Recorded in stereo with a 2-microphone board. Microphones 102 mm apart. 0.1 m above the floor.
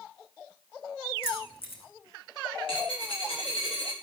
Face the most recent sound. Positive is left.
turn(degrees=75)  # may be behind; listen again after turning